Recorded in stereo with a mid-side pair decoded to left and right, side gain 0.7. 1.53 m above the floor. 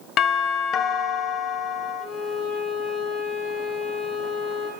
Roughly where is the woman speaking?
I don't hear a woman speaking.